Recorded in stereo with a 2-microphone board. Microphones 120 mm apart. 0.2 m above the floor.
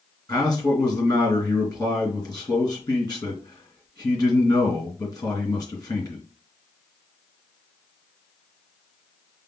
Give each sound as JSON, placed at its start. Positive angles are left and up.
{"t": 0.3, "sound": "a man speaking", "side_deg": 25, "distance_m": 2.5}